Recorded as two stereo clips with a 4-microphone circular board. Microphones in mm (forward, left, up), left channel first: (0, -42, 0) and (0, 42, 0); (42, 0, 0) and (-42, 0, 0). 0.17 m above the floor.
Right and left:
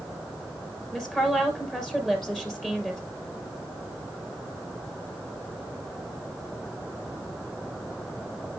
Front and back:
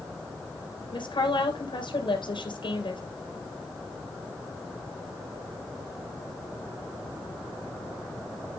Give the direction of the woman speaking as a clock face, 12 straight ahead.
12 o'clock.